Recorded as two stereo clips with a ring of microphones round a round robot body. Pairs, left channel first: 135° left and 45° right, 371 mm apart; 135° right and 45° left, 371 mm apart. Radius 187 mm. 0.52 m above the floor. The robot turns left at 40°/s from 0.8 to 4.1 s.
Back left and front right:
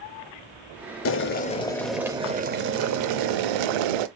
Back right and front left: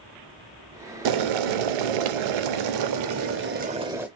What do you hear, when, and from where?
1.1 s boiling: 80° left, 0.5 m; by 4.1 s 40° right, 0.5 m